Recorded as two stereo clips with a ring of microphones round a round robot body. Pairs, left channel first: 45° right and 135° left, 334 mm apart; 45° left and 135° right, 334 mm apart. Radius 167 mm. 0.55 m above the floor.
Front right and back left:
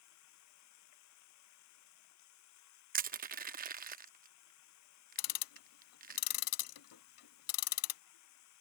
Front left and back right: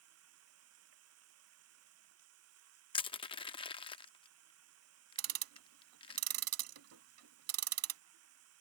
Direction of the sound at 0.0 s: 85° right.